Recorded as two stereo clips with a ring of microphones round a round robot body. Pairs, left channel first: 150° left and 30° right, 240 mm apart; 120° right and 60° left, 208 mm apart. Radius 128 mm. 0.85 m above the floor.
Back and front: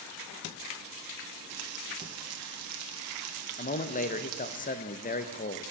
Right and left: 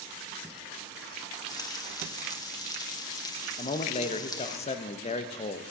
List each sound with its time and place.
1.5 s frying: 50° right, 1.9 m
3.6 s a man speaking: 170° right, 0.9 m